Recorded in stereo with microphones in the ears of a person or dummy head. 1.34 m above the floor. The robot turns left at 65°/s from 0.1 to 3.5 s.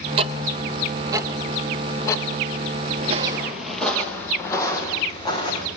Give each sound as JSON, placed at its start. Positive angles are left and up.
{"t": 0.2, "sound": "ticking", "side_deg": -30, "distance_m": 0.6}
{"t": 3.0, "sound": "footsteps", "side_deg": -40, "distance_m": 1.7}